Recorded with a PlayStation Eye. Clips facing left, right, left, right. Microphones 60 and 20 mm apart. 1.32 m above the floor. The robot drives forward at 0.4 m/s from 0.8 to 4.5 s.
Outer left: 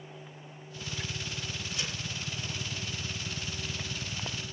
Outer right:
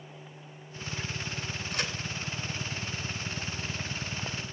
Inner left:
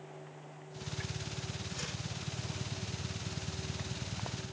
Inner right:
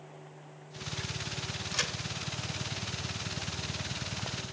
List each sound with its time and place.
1.7 s a crack: 55° right (ahead or behind), 2.5 m